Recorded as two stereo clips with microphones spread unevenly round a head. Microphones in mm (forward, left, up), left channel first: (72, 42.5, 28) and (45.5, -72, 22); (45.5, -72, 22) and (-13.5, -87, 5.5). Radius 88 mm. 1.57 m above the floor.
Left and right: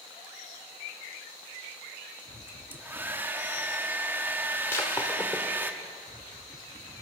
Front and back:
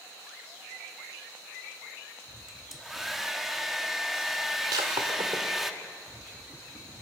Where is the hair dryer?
45° right, 1.1 m.